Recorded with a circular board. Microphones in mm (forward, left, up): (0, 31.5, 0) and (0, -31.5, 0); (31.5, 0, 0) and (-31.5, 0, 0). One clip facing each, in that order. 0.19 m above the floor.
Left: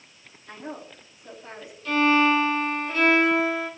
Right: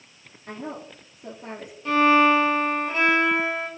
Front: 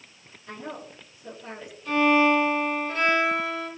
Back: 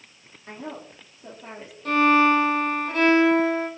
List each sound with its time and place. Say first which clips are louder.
0.5 s a woman speaking: right 3 dB, back 1 dB; 130° right, 4 m
1.9 s a violin: right 3 dB, back 2 dB; 155° right, 5.5 m